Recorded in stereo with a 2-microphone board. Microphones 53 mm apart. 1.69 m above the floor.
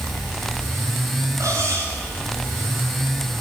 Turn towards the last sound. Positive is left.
turn(degrees=-75)  # may be behind; listen again after turning